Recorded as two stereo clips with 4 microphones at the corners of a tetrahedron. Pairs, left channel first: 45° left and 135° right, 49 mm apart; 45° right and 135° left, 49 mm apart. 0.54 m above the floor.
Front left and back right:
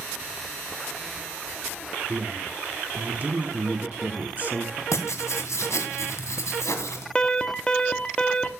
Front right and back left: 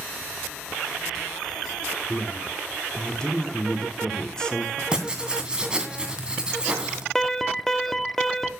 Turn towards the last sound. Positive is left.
turn(degrees=20)